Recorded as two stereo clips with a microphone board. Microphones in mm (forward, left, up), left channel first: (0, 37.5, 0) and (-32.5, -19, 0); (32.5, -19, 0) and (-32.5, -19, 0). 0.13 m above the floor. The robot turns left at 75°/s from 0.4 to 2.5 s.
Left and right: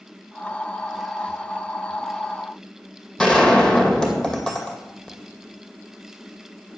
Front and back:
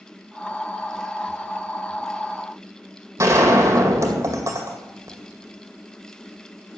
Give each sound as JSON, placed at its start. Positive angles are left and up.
{"t": 3.2, "sound": "a gunshot", "azimuth_deg": 140, "distance_m": 2.0}